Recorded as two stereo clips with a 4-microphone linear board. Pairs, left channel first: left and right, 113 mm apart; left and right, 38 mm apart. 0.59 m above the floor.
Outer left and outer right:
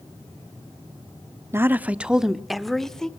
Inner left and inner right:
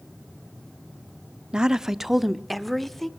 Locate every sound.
1.5 s a woman speaking: 20° right (ahead or behind), 0.7 m; by 3.1 s 5° left (ahead or behind), 1.5 m